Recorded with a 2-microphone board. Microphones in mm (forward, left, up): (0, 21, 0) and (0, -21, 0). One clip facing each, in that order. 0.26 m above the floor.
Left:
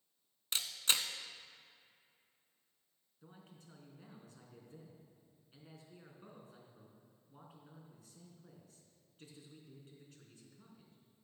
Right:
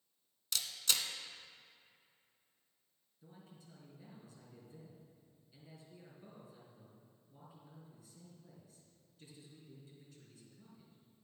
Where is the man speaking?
50° left (ahead or behind), 3.5 m.